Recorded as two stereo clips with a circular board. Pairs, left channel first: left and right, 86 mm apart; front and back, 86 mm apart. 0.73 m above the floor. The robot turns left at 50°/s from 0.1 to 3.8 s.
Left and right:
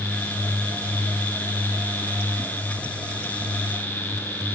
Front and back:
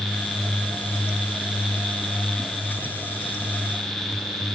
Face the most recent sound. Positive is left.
No sound to turn to.